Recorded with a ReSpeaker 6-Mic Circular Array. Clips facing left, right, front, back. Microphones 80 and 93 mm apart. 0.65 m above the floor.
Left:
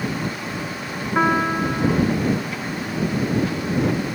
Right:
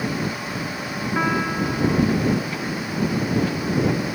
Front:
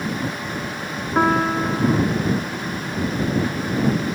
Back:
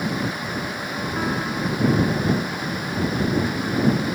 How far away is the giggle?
No giggle in this recording.